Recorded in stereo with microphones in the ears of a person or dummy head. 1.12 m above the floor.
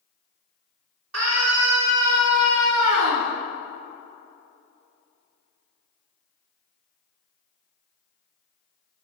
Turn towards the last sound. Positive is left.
turn(degrees=-80)